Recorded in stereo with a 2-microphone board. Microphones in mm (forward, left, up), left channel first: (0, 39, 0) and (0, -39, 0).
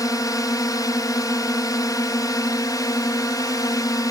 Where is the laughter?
No laughter in this recording.